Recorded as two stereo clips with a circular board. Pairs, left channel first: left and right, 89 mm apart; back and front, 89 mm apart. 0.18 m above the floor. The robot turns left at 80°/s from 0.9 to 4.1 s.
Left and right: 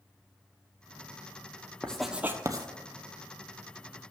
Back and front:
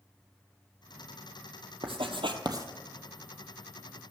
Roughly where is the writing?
Ahead.